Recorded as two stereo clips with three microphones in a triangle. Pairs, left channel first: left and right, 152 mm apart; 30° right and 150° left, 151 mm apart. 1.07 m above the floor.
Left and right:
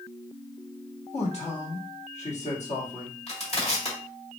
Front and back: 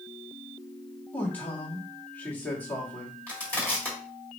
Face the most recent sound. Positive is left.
turn(degrees=50)